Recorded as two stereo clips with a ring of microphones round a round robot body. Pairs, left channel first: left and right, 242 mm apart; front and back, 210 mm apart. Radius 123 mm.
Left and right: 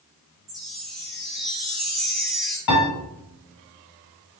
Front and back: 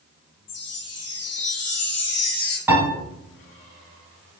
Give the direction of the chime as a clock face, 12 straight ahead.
12 o'clock.